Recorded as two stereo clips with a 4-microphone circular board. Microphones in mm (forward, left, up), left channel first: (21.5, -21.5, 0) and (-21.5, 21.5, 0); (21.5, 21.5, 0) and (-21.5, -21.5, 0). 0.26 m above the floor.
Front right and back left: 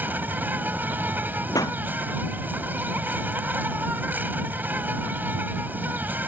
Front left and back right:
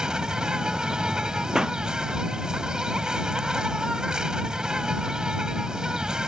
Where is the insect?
155° left.